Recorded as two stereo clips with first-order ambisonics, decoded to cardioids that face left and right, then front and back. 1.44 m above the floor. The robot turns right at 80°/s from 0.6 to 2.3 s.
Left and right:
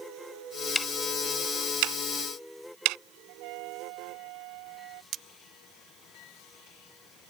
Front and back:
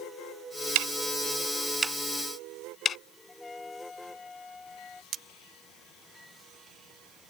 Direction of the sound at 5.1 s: 130° right.